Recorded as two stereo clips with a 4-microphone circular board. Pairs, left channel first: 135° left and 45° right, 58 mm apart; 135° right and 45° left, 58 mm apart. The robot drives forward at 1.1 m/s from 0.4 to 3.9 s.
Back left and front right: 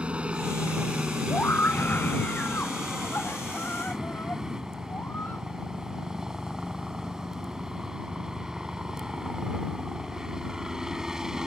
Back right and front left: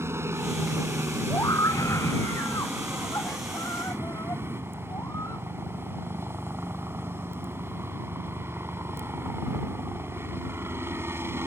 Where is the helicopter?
25° left; by 11.5 s 35° left.